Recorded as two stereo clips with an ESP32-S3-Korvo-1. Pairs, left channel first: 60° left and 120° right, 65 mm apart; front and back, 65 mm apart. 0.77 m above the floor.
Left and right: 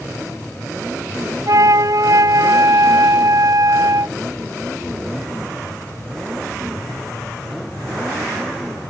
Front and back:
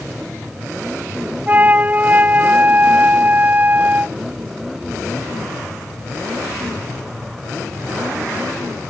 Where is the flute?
120° right.